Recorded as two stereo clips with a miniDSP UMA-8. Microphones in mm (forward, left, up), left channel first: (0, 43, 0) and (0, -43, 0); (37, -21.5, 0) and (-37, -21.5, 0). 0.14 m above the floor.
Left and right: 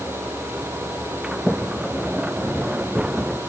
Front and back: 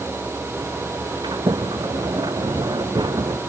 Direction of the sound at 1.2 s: 170° right.